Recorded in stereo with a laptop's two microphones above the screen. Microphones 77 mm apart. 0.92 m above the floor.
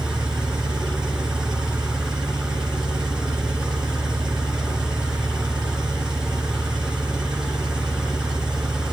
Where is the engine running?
10° right (ahead or behind), 3 m.